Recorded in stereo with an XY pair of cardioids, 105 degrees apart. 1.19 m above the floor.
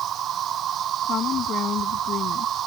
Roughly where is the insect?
Ahead right.